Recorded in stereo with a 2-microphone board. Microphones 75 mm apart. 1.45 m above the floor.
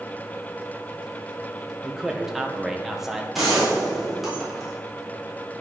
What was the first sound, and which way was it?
A man speaking, 5° right (ahead or behind).